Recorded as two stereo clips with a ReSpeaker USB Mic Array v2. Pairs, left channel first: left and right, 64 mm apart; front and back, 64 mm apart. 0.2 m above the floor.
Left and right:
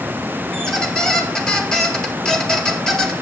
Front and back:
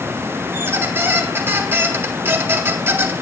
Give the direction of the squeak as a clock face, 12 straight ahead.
7 o'clock.